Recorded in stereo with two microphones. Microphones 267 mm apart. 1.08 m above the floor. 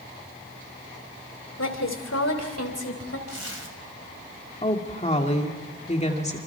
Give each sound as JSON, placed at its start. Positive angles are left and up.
{"t": 1.6, "sound": "a woman speaking", "side_deg": 85, "distance_m": 3.0}
{"t": 3.3, "sound": "a zipper", "side_deg": -65, "distance_m": 2.5}
{"t": 4.6, "sound": "a woman speaking", "side_deg": 25, "distance_m": 2.5}